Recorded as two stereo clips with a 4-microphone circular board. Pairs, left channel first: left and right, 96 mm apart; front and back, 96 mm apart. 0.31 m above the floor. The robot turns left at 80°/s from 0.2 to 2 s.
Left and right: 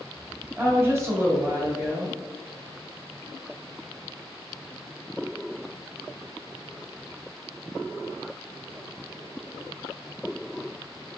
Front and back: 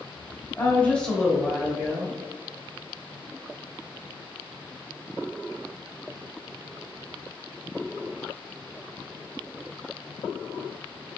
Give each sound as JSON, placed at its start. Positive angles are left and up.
{"t": 0.6, "sound": "a woman speaking", "azimuth_deg": -40, "distance_m": 1.3}